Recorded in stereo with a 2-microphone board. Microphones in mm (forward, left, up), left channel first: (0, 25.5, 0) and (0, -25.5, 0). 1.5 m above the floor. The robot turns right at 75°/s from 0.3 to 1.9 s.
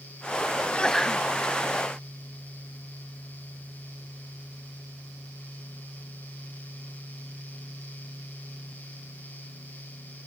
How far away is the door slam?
No door slam in this recording.